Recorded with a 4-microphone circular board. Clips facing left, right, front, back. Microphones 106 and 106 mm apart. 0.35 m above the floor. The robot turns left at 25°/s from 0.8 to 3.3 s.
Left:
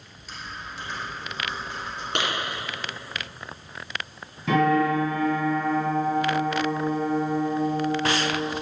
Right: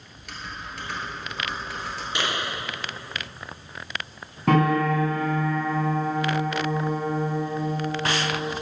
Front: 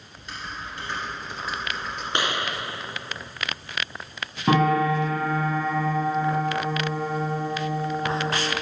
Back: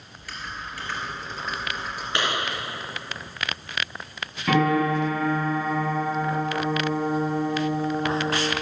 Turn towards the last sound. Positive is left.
turn(degrees=-60)